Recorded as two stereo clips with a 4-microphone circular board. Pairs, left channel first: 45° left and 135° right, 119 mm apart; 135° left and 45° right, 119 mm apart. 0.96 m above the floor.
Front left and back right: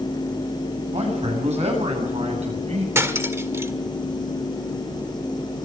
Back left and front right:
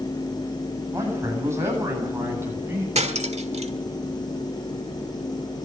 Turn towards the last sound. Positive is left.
turn(degrees=-65)